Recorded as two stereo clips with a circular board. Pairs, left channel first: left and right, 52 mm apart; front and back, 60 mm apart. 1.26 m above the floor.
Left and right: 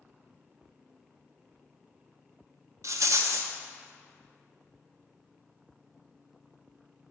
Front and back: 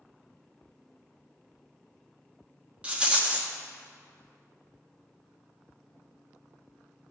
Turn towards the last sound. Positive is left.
turn(degrees=-110)